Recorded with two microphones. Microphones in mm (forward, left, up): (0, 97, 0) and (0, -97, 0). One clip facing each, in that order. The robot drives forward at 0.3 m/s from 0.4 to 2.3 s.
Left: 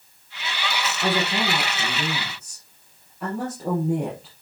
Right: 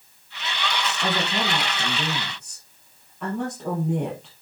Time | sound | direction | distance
1.0 | a woman speaking | centre (ahead or behind) | 4 m